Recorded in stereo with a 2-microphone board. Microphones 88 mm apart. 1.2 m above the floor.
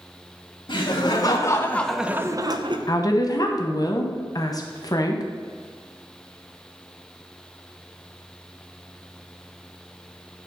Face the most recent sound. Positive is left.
turn(degrees=45)  # may be behind; listen again after turning